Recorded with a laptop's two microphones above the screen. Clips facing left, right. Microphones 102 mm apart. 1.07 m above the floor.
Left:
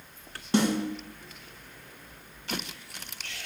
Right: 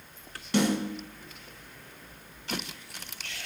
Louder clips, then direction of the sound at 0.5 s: Left 1 dB; 35° left (ahead or behind).